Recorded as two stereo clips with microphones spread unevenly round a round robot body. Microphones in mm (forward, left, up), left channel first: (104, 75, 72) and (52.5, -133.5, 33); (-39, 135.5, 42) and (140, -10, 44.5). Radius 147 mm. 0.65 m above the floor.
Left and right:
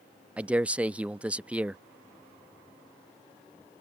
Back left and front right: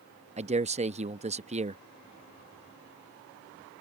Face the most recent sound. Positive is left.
turn(degrees=-50)